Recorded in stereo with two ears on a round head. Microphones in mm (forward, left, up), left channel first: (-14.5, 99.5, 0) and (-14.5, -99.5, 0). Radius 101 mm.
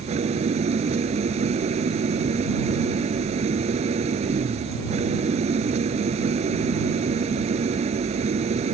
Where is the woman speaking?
No woman speaking in this recording.